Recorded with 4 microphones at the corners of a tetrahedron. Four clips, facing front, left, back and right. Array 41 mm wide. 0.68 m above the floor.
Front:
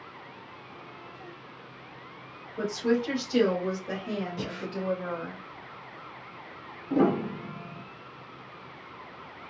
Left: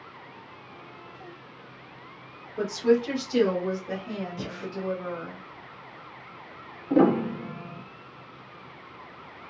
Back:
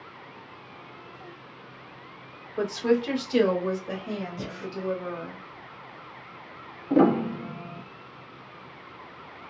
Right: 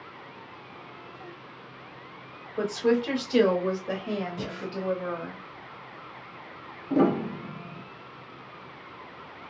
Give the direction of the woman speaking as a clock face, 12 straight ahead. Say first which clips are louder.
Left 2 dB, back 3 dB; 5 o'clock.